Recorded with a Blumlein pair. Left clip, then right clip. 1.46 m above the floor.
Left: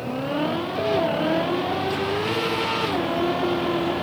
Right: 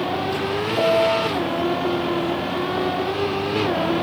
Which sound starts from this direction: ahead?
A piano, at 0.8 s.